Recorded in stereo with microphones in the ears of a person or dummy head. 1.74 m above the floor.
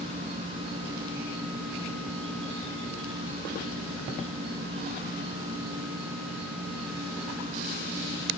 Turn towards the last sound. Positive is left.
turn(degrees=-30)  # may be behind; listen again after turning